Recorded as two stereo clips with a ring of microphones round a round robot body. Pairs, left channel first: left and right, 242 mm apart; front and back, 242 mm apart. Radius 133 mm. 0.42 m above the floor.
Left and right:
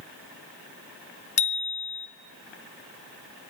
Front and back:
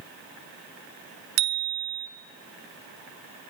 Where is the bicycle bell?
150° left, 3.5 m.